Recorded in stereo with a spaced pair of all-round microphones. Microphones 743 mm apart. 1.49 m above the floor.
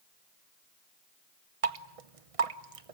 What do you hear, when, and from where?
1.6 s dripping: 50° right (ahead or behind), 1.1 m